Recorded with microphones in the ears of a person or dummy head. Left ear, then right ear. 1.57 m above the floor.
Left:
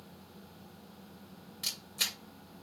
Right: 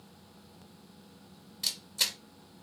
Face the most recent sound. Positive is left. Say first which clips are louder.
# right 3 dB
turn(degrees=0)  # may be behind; listen again after turning